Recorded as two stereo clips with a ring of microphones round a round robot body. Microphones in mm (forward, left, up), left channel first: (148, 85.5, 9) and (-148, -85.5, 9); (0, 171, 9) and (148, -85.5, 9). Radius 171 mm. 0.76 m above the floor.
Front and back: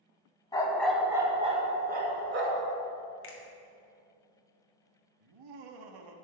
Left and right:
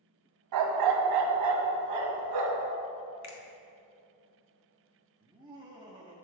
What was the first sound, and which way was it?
A dog barking, 50° right.